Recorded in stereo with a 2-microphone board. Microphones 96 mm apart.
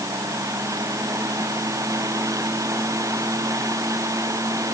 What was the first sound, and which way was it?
Only background noise.